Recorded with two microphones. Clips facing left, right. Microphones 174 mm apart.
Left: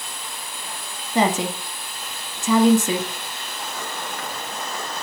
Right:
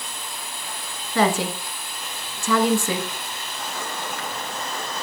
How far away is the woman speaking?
About 1.1 m.